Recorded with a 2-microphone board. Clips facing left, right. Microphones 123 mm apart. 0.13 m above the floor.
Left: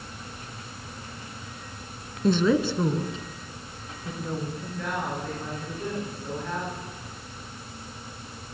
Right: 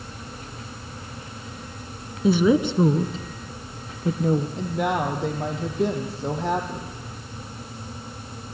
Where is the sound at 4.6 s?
75° right (ahead or behind), 5 m.